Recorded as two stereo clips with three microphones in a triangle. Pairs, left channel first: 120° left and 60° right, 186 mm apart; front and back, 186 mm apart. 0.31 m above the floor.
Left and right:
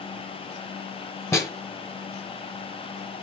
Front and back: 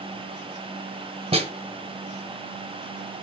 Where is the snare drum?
Straight behind, 1.1 m.